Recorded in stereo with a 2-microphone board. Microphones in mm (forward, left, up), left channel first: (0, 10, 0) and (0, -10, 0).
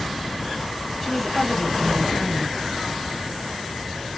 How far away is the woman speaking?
About 1.0 m.